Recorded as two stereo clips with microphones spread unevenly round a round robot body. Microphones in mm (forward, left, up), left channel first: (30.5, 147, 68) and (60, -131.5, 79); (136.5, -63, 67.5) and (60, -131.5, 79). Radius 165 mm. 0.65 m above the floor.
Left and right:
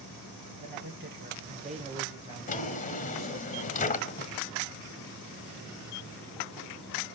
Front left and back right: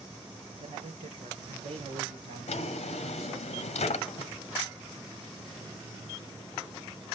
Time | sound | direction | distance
0.6 | a man speaking | 135° right | 2 m
2.5 | a drawer | 35° left | 0.8 m